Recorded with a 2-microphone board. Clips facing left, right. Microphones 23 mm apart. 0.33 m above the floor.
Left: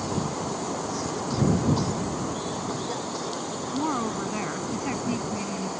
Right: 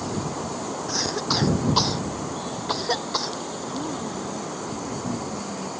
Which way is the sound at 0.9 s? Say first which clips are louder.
Right 5 dB; 70° right (ahead or behind).